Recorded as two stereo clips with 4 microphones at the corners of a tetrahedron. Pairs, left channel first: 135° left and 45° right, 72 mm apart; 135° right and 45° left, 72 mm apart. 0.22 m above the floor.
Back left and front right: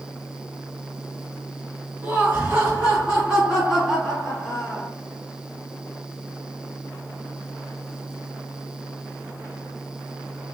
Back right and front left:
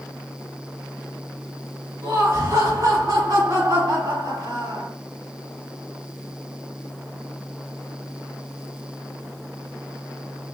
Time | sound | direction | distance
2.0 | laughter | 5° left | 2 m